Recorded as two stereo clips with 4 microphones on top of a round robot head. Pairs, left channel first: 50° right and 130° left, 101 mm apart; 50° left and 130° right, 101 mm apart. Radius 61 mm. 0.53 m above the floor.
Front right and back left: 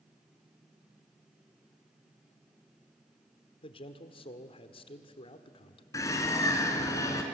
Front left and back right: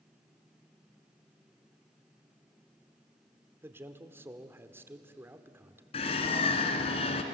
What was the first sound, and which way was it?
A man speaking, 65° right.